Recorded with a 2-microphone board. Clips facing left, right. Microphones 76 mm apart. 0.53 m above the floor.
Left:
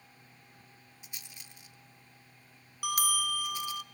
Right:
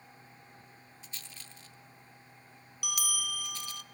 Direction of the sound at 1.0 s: 15° left (ahead or behind).